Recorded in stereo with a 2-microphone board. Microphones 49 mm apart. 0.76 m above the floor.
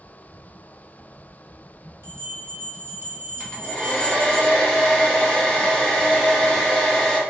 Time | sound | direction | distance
2.0 | a bell | 60° right (ahead or behind) | 0.8 m
3.4 | a hair dryer | 25° left (ahead or behind) | 0.8 m